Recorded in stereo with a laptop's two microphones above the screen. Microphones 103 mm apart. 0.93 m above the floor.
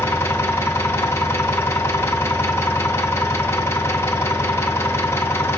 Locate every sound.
0.0 s an engine running: 25° left (ahead or behind), 0.8 m